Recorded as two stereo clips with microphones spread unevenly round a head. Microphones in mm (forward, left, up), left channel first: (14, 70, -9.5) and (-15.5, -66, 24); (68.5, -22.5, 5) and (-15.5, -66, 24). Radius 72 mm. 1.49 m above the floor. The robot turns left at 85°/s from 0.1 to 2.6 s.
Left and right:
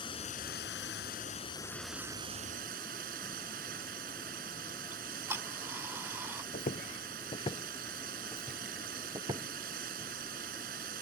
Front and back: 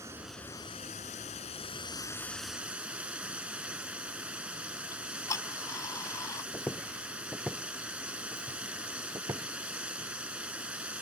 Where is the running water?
135° left; by 11.0 s 75° right.